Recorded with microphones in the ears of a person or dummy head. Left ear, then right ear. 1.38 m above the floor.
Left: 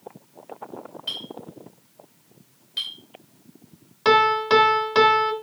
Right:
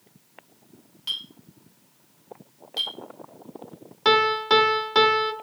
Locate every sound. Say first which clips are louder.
1.1 s a clink: right 1 dB; 35° right (ahead or behind), 2.5 m
4.0 s a piano: left 2 dB; 10° right (ahead or behind), 1.0 m